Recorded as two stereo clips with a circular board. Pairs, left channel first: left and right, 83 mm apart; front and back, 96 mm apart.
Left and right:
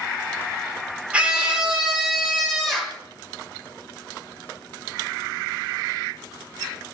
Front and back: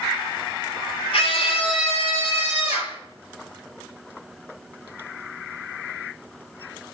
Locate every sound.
1.1 s a scream: 15° right, 4 m; by 3.0 s straight ahead, 5 m